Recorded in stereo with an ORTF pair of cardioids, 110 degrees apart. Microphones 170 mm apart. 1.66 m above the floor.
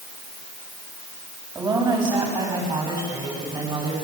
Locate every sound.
1.6 s a woman speaking: 25° right, 8 m; by 4.0 s 30° right, 11 m